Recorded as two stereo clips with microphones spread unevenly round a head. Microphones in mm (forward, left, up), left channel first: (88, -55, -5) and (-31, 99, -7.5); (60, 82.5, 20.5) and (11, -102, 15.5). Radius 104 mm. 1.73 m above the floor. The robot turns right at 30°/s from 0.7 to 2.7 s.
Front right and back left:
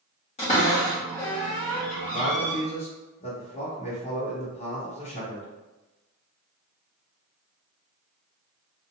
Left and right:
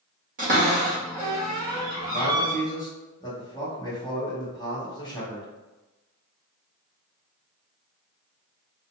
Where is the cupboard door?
90° right, 1.3 m; by 2.6 s 35° right, 1.3 m.